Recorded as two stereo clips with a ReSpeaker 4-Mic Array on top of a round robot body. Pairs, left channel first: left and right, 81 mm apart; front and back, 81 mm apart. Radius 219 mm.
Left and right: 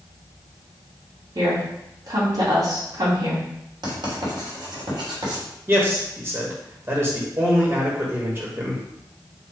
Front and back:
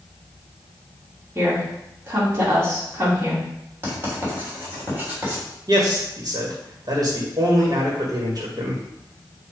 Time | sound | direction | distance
1.4 | a woman speaking | 115° right | 2.5 m
3.8 | writing | 115° right | 3 m
5.7 | a man speaking | 145° right | 2 m